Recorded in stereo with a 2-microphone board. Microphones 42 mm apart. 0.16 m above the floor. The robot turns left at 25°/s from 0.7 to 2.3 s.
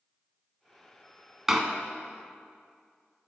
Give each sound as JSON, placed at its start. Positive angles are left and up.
{"t": 1.5, "sound": "a door slam", "side_deg": -10, "distance_m": 0.8}